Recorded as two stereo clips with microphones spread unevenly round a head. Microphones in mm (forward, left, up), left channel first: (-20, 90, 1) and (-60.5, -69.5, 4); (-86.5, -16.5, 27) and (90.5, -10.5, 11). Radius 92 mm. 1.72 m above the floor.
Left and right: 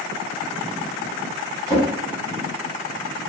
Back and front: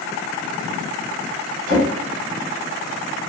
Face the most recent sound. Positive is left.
turn(degrees=-35)